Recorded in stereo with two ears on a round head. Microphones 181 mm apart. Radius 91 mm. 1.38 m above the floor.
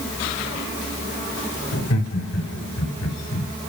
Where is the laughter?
90° left, 5 m; by 3.5 s 80° left, 5.5 m.